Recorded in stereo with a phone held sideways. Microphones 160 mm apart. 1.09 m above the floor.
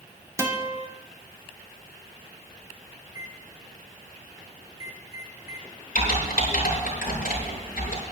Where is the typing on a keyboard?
75° left (ahead or behind), 6.5 m.